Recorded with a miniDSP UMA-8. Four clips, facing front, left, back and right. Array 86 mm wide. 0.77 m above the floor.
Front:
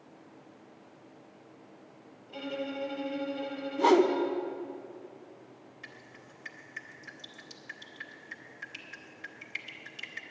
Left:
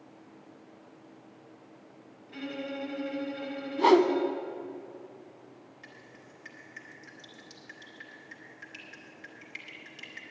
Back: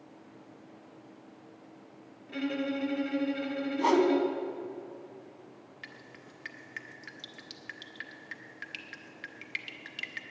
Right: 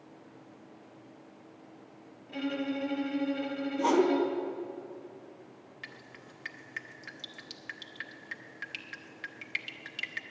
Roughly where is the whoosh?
Left.